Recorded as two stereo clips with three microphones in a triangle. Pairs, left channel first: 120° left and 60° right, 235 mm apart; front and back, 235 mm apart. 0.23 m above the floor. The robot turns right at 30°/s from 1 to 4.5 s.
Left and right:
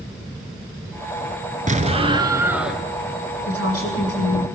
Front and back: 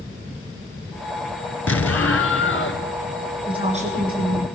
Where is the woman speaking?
110° left, 7.5 m; by 4.5 s 140° left, 7.5 m.